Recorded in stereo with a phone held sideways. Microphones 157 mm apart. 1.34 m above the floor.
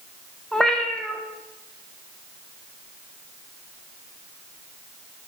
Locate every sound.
0.5 s a cat meowing: 5° left (ahead or behind), 0.6 m